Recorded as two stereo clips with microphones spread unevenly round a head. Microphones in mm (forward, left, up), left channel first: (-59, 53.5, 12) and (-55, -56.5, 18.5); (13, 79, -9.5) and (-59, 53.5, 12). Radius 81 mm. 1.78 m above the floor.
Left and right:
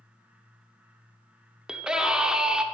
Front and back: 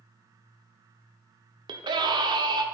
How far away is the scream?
About 0.9 m.